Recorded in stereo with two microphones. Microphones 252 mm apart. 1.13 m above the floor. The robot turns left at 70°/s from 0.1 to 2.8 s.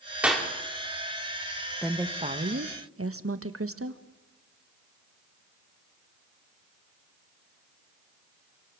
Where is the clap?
5° right (ahead or behind), 3 m; by 0.5 s 15° left (ahead or behind), 3 m.